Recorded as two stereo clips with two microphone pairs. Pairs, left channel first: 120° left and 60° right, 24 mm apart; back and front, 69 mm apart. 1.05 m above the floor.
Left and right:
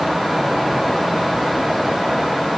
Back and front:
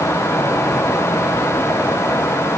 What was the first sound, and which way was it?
Only background noise.